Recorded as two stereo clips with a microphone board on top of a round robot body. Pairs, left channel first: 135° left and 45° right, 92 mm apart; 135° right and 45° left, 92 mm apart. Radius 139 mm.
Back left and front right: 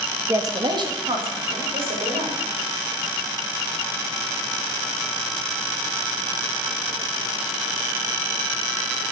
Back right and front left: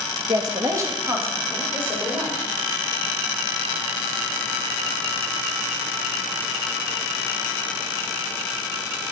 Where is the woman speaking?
10° left, 1.0 m; by 2.4 s 25° right, 3.5 m.